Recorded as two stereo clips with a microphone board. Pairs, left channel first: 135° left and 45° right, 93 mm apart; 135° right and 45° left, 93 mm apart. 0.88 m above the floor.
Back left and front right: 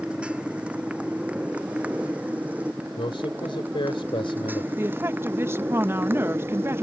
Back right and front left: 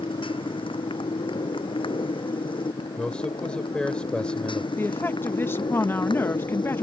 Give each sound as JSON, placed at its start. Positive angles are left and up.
{"t": 0.0, "sound": "a motorcycle", "azimuth_deg": -125}
{"t": 3.0, "sound": "a man speaking", "azimuth_deg": 145}
{"t": 4.8, "sound": "a woman speaking", "azimuth_deg": -85}